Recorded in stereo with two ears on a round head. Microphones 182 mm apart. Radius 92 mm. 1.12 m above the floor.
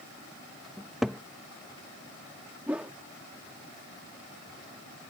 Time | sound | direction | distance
0.8 | a cupboard door | centre (ahead or behind) | ?
2.7 | a whoosh | 5° right (ahead or behind) | ?